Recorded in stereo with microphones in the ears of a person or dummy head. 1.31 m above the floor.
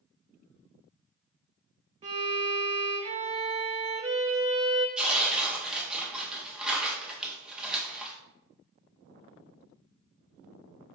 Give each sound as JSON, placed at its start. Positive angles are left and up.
{"t": 2.0, "sound": "a violin", "side_deg": -35, "distance_m": 0.7}
{"t": 5.0, "sound": "tearing paper", "side_deg": 0, "distance_m": 0.8}